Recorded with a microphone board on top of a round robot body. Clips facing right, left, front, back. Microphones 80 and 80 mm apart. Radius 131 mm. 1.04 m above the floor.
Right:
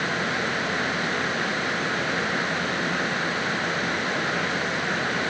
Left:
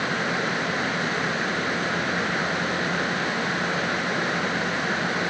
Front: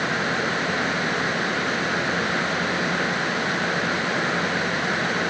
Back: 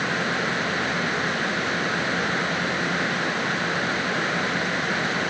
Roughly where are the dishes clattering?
I don't hear dishes clattering.